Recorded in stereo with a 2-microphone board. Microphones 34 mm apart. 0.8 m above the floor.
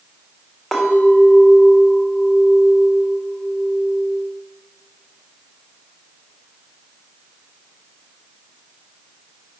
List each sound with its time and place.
0.7 s a clink: centre (ahead or behind), 1.6 m